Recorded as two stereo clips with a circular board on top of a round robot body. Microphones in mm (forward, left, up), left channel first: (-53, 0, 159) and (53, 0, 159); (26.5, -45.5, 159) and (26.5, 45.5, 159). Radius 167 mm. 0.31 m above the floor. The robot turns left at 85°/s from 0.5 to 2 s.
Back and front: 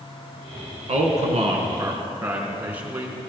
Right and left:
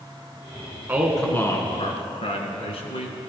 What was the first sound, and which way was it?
A man speaking, 20° left.